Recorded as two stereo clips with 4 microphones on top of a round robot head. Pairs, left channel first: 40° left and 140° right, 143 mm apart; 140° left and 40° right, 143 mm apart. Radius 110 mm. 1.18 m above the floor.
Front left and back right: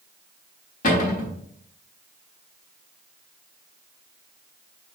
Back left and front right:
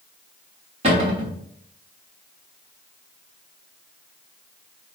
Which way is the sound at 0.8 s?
10° left.